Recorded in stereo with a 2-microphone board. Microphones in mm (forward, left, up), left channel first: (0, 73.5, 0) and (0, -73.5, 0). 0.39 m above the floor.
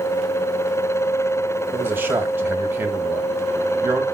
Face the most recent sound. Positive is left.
turn(degrees=-15)  # may be behind; listen again after turning